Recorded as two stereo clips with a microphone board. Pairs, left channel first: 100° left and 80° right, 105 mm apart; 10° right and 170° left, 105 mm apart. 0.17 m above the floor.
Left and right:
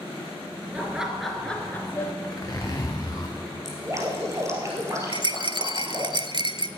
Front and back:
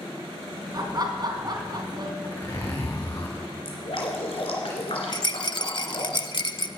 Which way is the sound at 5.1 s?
50° right.